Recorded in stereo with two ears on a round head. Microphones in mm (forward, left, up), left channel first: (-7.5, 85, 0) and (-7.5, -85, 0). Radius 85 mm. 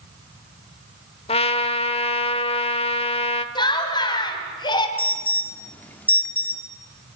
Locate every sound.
1.3 s a trumpet: 30° left (ahead or behind), 1.1 m
3.5 s laughter: 25° left (ahead or behind), 3 m
5.0 s an alarm: 10° left (ahead or behind), 1.7 m